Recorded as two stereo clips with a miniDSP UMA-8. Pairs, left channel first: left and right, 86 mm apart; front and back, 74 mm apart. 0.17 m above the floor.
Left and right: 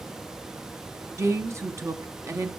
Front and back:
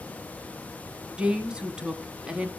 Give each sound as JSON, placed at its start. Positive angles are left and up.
{"t": 1.2, "sound": "a woman speaking", "azimuth_deg": -110, "distance_m": 1.3}